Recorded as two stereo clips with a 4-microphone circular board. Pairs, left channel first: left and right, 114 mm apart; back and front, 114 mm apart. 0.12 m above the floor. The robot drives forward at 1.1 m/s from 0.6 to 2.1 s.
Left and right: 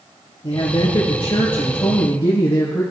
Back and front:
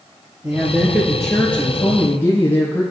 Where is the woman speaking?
65° left, 2 m; by 2.8 s 125° left, 2 m.